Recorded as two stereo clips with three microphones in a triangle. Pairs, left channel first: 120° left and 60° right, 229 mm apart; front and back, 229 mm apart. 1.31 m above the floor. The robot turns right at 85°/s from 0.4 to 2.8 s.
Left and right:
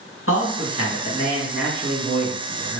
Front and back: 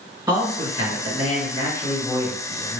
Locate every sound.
0.3 s a man speaking: 110° left, 1.7 m; by 2.8 s 50° right, 1.7 m